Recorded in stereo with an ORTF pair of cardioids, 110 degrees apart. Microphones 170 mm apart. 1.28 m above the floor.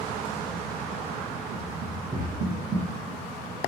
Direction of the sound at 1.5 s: 50° right.